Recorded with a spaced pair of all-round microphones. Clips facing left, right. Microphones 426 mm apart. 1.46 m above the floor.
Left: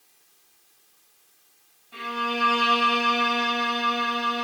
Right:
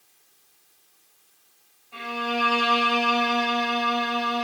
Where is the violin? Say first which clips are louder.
Right 1 dB; 30° left (ahead or behind), 1.2 m.